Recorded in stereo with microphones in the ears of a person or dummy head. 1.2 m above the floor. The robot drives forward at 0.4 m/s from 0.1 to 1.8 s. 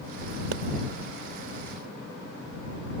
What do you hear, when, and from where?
0.5 s a pop: 85° right